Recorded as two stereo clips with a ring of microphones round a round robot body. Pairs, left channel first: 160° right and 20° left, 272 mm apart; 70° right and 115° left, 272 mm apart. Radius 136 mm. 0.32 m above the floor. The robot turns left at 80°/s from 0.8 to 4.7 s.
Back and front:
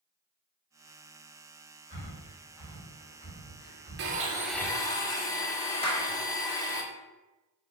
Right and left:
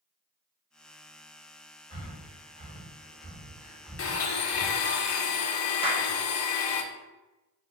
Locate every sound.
1.9 s breathing: 10° right, 1.4 m; by 4.9 s 125° left, 1.4 m
4.0 s a blender: 25° right, 0.5 m; by 6.8 s 80° right, 0.5 m
5.8 s a clap: 160° left, 0.6 m